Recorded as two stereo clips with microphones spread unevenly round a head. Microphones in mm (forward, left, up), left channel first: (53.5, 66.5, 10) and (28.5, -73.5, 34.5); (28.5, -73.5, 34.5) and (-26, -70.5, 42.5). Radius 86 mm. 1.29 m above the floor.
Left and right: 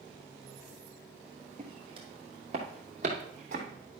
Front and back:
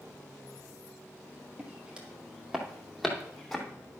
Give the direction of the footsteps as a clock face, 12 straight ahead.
4 o'clock.